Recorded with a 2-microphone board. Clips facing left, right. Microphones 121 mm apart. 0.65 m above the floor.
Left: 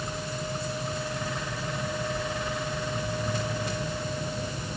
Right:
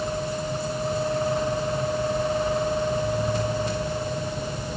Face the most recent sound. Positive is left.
No sound to turn to.